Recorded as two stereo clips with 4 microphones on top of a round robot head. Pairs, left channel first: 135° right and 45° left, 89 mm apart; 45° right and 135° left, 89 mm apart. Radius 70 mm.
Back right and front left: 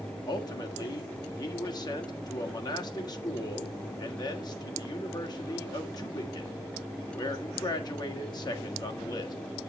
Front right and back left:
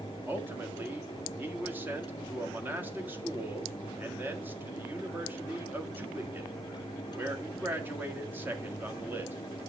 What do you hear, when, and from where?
0.3 s a man speaking: 160° right, 1.8 m